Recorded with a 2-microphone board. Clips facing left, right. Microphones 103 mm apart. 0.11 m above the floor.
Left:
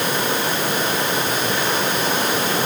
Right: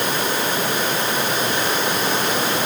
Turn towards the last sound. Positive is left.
No sound to turn to.